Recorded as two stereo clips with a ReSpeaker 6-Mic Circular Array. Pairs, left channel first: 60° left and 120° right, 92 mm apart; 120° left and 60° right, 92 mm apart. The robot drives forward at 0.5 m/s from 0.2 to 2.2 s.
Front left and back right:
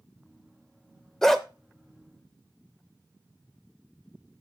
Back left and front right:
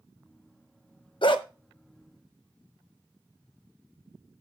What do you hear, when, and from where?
1.2 s a dog barking: 145° left, 0.6 m; by 1.4 s 150° left, 0.7 m